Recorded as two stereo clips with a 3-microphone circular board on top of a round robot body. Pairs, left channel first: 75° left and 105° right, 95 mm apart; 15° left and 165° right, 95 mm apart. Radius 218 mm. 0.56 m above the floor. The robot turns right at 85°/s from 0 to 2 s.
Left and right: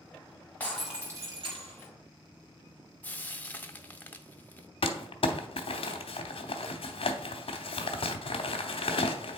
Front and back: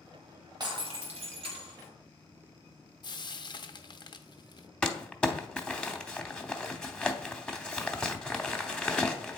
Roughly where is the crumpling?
Left.